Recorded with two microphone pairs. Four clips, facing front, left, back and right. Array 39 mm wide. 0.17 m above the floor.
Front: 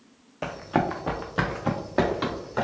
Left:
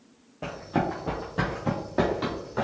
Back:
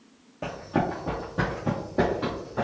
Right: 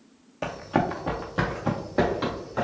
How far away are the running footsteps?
About 0.9 m.